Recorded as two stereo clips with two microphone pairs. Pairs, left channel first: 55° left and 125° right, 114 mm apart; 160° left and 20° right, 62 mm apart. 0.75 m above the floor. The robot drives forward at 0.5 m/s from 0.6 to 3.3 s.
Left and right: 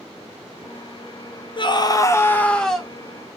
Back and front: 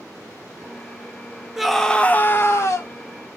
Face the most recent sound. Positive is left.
turn(degrees=155)